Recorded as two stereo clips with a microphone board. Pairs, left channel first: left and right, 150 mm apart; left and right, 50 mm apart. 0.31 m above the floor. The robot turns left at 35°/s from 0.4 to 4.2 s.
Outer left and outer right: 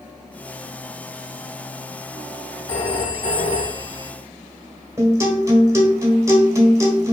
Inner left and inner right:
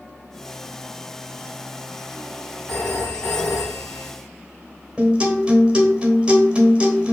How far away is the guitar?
About 1.2 m.